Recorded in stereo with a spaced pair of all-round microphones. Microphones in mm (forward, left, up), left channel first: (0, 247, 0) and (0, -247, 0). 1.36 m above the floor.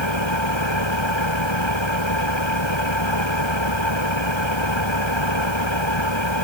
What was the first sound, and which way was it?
An engine running, 65° left (ahead or behind).